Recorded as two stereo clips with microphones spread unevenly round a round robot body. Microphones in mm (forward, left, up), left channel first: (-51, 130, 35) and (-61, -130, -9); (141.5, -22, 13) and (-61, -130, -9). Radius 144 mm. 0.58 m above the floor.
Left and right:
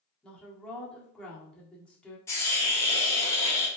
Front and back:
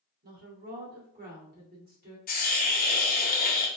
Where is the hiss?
Straight ahead, 1.1 m.